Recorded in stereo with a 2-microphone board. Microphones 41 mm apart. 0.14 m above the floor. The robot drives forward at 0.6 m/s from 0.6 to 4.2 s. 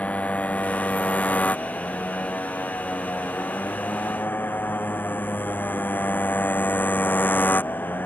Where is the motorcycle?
35° left (ahead or behind); by 8.1 s 45° left (ahead or behind).